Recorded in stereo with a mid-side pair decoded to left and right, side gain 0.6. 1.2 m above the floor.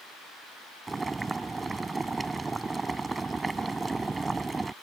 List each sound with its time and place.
0.9 s boiling: 20° right